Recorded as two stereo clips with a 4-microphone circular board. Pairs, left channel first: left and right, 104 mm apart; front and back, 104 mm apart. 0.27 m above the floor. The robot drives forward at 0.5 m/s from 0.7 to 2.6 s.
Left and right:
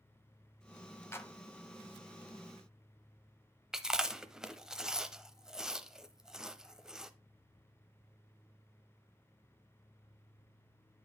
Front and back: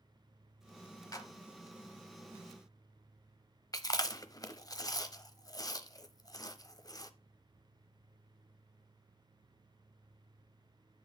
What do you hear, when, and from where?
1.1 s a clap: 35° left, 0.9 m; by 1.4 s 40° left, 0.9 m
3.7 s chewing: 10° right, 0.6 m